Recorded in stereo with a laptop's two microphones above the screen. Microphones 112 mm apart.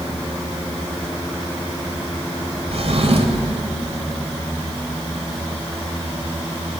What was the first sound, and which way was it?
A drawer, 65° right (ahead or behind).